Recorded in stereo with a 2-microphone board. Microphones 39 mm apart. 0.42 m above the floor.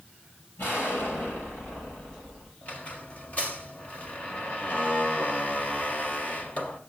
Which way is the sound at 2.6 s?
40° left (ahead or behind).